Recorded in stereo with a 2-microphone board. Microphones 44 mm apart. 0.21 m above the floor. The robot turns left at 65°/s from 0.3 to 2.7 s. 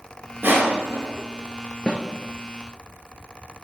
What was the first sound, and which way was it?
Crushing, 50° right (ahead or behind).